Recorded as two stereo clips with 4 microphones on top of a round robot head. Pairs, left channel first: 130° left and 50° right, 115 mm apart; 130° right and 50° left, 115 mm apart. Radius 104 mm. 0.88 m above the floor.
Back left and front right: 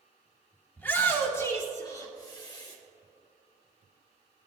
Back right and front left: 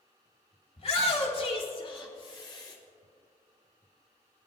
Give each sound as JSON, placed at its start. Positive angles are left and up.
{"t": 0.8, "sound": "a shout", "azimuth_deg": -155, "distance_m": 2.5}